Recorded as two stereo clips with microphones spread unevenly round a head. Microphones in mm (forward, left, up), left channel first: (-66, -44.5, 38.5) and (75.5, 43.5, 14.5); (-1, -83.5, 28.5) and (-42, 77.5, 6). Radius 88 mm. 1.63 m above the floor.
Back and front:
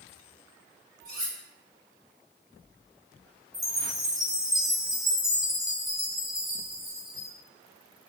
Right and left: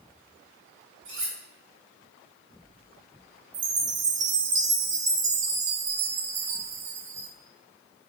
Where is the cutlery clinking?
80° left, 2.5 m.